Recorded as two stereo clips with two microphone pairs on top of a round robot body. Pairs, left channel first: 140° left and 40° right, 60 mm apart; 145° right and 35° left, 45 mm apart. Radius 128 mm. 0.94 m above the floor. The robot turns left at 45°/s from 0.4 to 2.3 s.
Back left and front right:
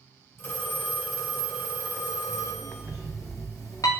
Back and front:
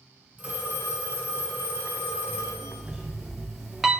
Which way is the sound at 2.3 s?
115° left.